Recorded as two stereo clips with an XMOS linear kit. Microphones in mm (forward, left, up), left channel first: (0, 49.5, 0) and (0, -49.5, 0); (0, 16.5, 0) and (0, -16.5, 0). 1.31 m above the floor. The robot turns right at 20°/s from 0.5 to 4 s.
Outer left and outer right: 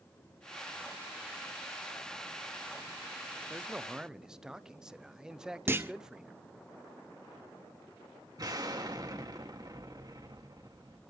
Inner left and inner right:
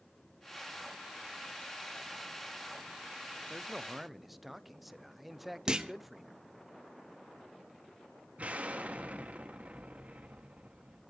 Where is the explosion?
40° right (ahead or behind), 2 m.